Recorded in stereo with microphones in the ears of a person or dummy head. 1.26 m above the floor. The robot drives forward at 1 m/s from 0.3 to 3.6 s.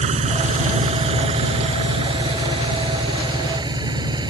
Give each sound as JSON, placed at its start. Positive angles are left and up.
{"t": 0.0, "sound": "an engine running", "side_deg": -40}